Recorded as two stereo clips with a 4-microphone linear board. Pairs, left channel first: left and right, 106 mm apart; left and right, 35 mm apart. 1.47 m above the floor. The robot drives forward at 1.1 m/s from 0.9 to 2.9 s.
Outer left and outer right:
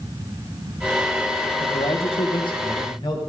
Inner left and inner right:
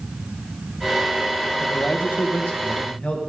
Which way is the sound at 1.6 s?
85° left.